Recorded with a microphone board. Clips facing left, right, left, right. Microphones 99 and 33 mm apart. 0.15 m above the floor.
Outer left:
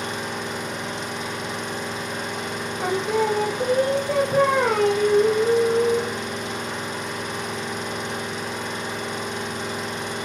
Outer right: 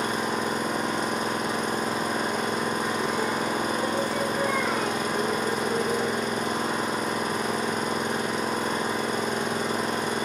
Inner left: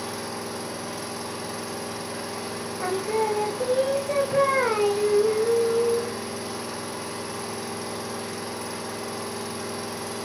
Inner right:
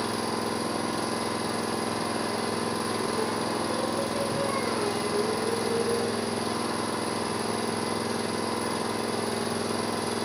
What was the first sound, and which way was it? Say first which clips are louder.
An engine running: outer right 3 dB, inner right 4 dB; 50° right (ahead or behind).